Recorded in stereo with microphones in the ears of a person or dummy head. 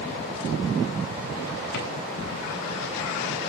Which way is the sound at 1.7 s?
60° left (ahead or behind).